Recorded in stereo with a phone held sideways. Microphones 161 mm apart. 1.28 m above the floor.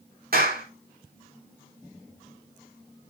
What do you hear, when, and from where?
0.3 s a clap: 65° right (ahead or behind), 4 m